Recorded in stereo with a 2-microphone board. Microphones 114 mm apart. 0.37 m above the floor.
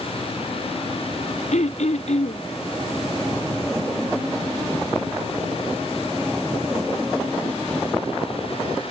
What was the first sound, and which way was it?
Throat clearing, 80° left.